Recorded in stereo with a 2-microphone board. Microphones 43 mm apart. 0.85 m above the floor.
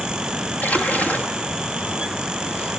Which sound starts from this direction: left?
A splash, at 0.6 s.